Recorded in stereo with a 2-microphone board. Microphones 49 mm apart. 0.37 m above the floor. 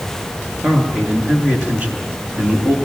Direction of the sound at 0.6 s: 30° right (ahead or behind).